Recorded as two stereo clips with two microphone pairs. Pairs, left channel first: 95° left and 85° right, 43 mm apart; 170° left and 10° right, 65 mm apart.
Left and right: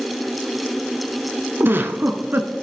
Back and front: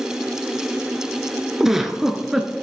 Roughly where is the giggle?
Right.